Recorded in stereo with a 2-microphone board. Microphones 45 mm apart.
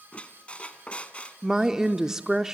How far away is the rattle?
I don't hear a rattle.